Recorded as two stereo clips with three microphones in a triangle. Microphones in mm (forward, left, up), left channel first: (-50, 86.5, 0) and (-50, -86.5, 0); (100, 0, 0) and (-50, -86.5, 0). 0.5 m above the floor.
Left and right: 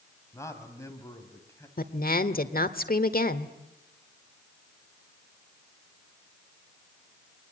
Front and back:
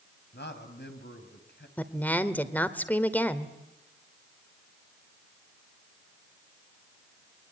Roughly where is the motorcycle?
I don't hear a motorcycle.